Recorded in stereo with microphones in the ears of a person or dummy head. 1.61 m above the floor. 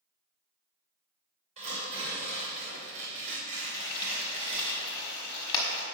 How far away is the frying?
About 1.4 m.